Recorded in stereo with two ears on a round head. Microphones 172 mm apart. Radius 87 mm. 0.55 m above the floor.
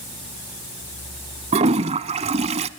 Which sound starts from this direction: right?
A toilet flushing, at 1.5 s.